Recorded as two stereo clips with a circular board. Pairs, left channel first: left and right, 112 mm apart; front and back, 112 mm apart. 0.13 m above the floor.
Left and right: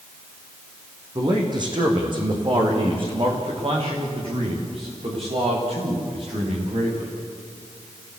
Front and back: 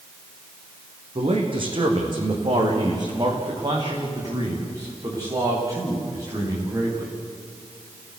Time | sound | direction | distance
1.1 | a man speaking | 140° right | 6 m